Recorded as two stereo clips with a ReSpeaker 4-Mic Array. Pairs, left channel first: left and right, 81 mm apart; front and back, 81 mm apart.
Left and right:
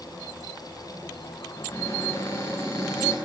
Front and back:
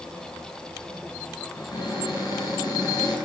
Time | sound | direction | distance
1.6 | a cupboard door | 35° left | 8.5 m